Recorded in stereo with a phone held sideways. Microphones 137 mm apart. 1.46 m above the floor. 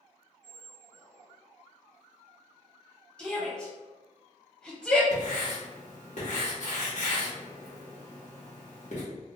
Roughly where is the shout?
Centre.